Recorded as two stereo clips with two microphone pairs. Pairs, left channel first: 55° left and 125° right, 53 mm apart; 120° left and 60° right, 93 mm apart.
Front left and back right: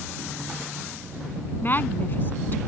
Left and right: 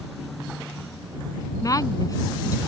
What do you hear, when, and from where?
1.6 s a woman speaking: 85° left